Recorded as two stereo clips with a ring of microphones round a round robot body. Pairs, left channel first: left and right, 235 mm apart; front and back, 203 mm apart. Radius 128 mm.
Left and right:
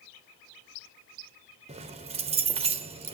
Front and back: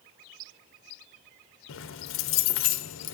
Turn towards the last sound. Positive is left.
turn(degrees=-25)